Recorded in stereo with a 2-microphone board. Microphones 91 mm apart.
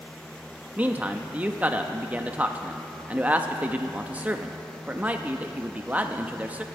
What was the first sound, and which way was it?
A man speaking, 15° right (ahead or behind).